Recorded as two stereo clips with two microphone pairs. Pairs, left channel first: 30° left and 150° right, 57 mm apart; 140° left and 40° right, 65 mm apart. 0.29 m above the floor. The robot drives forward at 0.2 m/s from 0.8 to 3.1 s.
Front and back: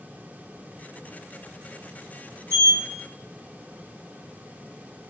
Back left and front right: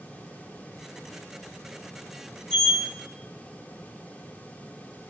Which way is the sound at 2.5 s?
145° right.